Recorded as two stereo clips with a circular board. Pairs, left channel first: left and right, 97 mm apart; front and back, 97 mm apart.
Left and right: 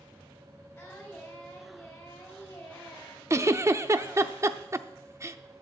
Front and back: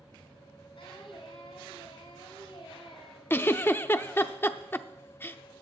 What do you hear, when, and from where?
0.8 s singing: 20° left, 4 m
3.3 s a giggle: 50° right, 0.6 m